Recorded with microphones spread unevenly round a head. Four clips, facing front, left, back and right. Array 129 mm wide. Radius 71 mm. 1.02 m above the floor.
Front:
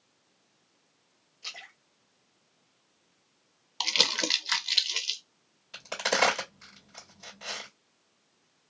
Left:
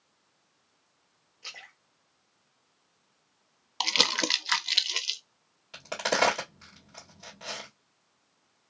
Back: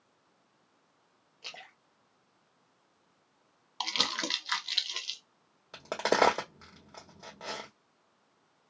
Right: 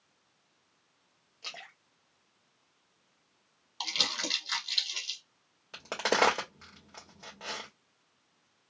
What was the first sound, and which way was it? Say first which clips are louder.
A splash: right 2 dB, front 1 dB; 145° right.